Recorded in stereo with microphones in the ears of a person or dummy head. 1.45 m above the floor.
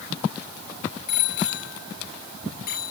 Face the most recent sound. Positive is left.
turn(degrees=55)  # may be behind; listen again after turning